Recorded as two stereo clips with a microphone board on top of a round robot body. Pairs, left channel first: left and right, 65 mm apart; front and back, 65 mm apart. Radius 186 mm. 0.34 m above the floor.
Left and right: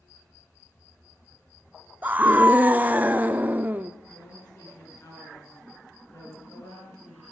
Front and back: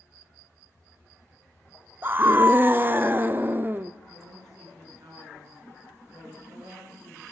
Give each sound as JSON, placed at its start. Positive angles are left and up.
{"t": 2.0, "sound": "a scream", "azimuth_deg": -140, "distance_m": 1.1}
{"t": 4.1, "sound": "a woman speaking", "azimuth_deg": 145, "distance_m": 6.5}